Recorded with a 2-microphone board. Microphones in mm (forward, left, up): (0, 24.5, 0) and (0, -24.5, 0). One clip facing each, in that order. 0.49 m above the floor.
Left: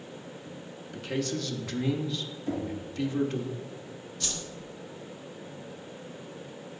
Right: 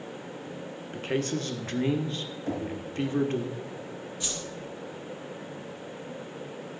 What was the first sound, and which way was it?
A man speaking, 35° right (ahead or behind).